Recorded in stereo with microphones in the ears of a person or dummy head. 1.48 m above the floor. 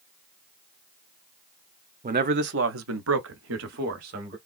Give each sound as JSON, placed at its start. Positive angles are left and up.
{"t": 2.0, "sound": "a man speaking", "side_deg": -35, "distance_m": 0.6}